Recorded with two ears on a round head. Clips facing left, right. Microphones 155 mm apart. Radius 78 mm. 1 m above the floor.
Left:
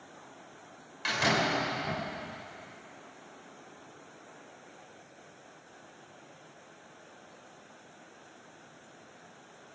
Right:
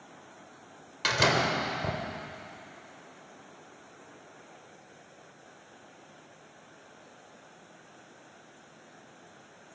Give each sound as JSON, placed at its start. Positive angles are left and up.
{"t": 1.0, "sound": "a door slam", "side_deg": -65, "distance_m": 3.5}